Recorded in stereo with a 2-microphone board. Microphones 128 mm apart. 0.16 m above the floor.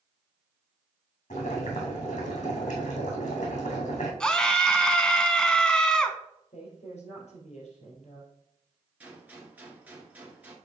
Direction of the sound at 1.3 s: 65° left (ahead or behind).